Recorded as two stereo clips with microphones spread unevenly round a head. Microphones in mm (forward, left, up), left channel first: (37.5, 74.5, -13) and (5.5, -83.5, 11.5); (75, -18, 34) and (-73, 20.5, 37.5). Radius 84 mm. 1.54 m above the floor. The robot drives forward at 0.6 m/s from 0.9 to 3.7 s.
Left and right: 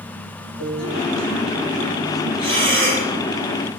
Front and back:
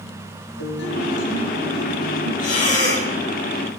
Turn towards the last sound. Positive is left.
turn(degrees=-65)